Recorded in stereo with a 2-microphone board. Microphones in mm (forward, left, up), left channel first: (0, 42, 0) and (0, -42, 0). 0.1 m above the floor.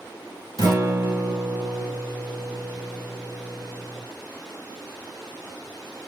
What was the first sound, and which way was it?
A guitar, 45° right (ahead or behind).